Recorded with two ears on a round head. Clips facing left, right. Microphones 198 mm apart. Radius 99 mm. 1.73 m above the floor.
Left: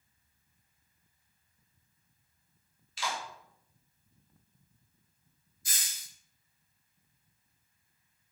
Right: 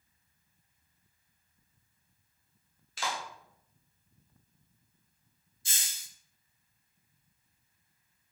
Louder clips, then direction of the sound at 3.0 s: Even; 45° right (ahead or behind).